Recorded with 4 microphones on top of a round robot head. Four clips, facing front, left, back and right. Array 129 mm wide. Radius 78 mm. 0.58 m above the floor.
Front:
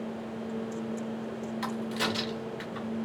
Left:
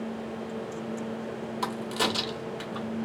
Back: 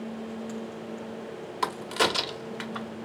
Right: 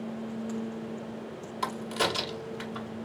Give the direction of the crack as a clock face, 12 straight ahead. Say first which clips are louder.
Even, back 6 dB; 6 o'clock.